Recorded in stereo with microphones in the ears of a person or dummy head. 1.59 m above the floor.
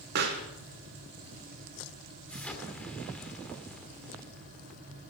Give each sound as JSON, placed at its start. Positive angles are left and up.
{"t": 0.1, "sound": "a pop", "side_deg": -60, "distance_m": 1.6}
{"t": 2.3, "sound": "an explosion", "side_deg": 5, "distance_m": 2.0}